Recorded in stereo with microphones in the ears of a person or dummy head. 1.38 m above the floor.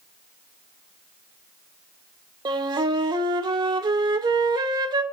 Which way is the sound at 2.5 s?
25° right (ahead or behind).